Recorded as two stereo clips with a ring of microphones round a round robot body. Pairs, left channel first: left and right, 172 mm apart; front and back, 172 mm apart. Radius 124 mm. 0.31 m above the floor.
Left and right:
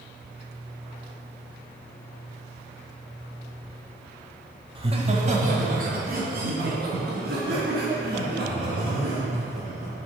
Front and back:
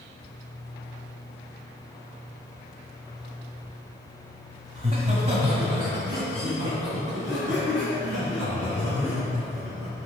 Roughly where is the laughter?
Behind right.